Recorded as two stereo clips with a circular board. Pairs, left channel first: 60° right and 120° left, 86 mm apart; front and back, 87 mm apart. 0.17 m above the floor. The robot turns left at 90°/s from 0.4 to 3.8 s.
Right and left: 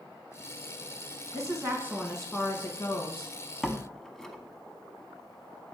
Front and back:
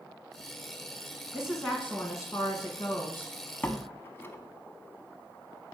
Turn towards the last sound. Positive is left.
turn(degrees=20)